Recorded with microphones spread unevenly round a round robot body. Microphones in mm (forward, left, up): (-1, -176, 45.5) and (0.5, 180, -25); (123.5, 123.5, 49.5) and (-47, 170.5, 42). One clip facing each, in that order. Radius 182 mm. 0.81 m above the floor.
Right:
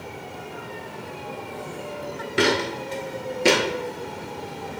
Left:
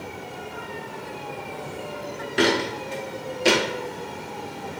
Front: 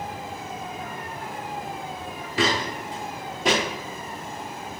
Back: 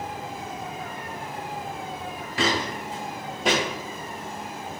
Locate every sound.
2.4 s footsteps: 50° right, 0.8 m; by 3.6 s 105° right, 1.1 m